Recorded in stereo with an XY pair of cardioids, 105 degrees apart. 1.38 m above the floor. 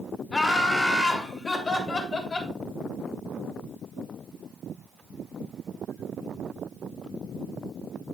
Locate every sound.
0.3 s laughter: 20° left, 2 m; by 2.5 s 35° left, 3.5 m